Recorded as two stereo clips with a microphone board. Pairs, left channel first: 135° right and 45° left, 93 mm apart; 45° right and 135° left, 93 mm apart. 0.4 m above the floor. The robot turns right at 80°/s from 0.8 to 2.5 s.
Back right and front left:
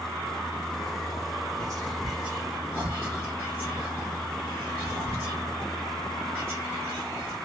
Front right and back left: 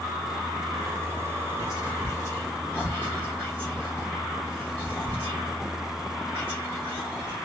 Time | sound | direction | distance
1.6 | whispering | 65° right | 1.2 m